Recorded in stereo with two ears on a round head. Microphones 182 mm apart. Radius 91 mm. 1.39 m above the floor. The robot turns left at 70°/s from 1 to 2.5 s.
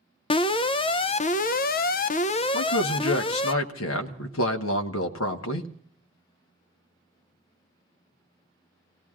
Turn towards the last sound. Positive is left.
turn(degrees=70)  # may be behind; listen again after turning